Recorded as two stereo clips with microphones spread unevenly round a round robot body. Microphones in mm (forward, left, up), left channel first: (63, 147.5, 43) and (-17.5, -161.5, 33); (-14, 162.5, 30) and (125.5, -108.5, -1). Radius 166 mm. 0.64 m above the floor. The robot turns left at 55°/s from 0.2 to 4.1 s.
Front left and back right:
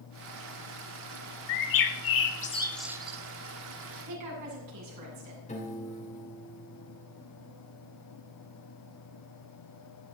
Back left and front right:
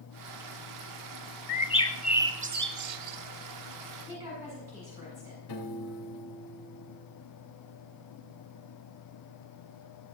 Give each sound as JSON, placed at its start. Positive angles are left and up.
{"t": 1.5, "sound": "a bird", "azimuth_deg": 60, "distance_m": 1.2}
{"t": 4.1, "sound": "a woman speaking", "azimuth_deg": -145, "distance_m": 7.0}
{"t": 5.5, "sound": "a piano", "azimuth_deg": 145, "distance_m": 3.0}